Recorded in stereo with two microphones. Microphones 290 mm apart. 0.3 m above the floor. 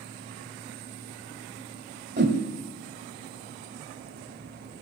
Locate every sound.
2.2 s a whoosh: 35° right (ahead or behind), 1.6 m